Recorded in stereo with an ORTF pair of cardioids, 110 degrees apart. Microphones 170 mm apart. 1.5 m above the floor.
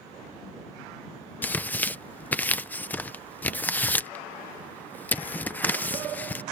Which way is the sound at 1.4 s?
10° left.